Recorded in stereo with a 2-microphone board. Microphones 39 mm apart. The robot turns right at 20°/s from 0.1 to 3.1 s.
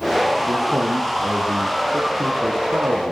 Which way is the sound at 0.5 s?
115° right.